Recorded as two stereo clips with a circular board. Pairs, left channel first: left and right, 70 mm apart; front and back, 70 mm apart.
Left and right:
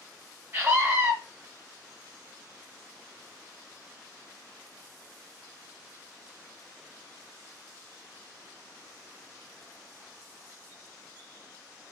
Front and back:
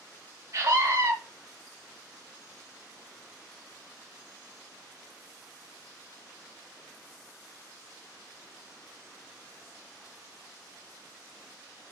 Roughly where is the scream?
Behind right.